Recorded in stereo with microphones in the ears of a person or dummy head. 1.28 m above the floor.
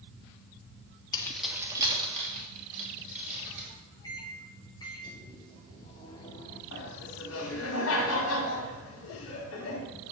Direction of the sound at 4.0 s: 25° left (ahead or behind).